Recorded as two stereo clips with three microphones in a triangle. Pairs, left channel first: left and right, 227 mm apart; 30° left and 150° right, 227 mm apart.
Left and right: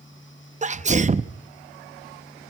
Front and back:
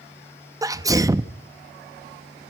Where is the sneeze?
85° right, 0.6 m.